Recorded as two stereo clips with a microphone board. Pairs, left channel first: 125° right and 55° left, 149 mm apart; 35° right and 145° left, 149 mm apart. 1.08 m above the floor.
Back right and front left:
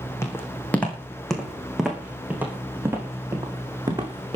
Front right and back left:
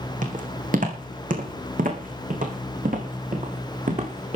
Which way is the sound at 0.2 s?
165° left.